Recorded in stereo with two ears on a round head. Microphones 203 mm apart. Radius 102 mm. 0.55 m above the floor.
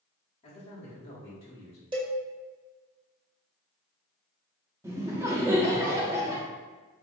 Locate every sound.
0.4 s a man speaking: 25° left (ahead or behind), 1.3 m
1.9 s a cowbell: 20° right (ahead or behind), 0.8 m
4.8 s laughter: 15° right (ahead or behind), 0.6 m